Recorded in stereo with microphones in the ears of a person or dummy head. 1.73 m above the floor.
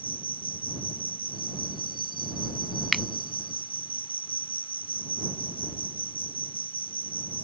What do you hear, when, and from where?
0.0 s an insect: 25° left (ahead or behind)
2.9 s a finger snap: centre (ahead or behind)